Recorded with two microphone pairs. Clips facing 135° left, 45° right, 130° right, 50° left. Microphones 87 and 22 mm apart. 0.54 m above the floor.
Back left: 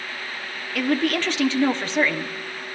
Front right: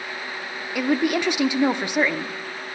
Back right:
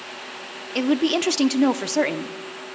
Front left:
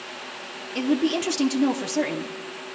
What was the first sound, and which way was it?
A woman speaking, 105° right.